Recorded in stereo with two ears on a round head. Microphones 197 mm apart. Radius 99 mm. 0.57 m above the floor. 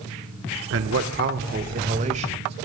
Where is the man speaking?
60° right (ahead or behind), 1.1 m; by 2.5 s 25° right (ahead or behind), 2.5 m.